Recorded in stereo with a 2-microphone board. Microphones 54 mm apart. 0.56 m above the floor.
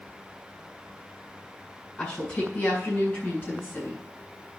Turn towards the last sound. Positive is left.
turn(degrees=35)  # may be behind; listen again after turning